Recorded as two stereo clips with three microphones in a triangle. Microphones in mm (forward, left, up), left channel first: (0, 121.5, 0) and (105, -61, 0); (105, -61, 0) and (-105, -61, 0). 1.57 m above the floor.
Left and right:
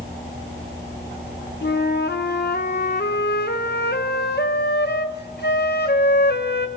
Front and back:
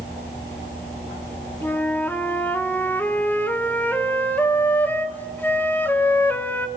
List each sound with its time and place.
1.6 s a flute: 80° left, 1.5 m